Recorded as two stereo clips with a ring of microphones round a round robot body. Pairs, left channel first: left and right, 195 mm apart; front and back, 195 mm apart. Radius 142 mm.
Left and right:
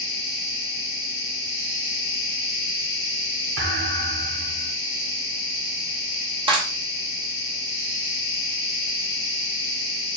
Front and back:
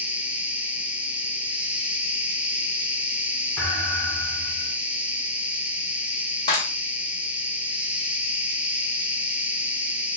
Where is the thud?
85° right, 1.2 m.